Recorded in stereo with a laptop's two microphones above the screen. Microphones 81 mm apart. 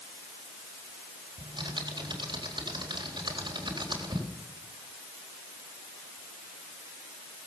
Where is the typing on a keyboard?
70° right (ahead or behind), 4 m.